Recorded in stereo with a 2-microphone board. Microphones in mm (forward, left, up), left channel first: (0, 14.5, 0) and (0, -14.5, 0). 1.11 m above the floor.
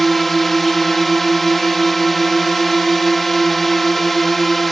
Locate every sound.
0.0 s a drone: 5° left (ahead or behind)